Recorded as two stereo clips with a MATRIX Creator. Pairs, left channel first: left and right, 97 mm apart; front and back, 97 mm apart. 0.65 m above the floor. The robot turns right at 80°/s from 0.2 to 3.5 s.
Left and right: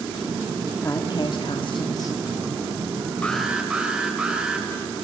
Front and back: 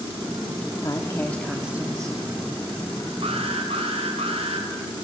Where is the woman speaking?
35° left, 1.3 m; by 2.2 s 145° left, 1.3 m.